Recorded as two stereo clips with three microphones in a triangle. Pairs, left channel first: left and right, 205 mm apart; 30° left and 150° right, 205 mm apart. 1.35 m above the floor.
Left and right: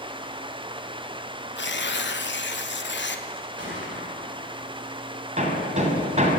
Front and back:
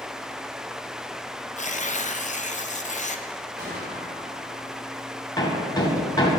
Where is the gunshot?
110° right, 4 m.